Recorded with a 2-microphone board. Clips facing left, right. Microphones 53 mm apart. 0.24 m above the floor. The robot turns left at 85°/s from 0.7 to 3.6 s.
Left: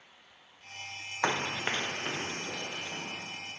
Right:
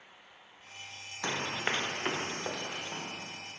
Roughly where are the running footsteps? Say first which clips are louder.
Left 3 dB; left.